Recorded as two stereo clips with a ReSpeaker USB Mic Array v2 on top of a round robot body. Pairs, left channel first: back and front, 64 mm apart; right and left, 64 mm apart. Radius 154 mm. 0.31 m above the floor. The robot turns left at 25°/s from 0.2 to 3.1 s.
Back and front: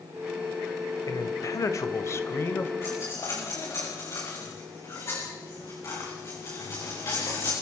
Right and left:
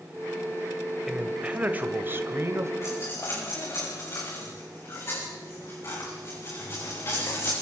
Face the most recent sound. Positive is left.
turn(degrees=-135)